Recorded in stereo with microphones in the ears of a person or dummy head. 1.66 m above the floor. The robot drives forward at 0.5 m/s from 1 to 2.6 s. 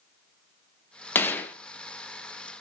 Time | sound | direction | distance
1.1 | a gunshot | 15° left (ahead or behind) | 0.9 m